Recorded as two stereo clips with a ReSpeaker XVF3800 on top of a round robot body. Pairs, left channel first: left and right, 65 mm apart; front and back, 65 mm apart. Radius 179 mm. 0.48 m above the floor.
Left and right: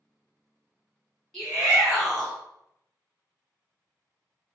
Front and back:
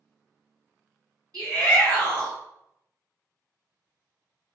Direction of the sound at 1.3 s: Straight behind.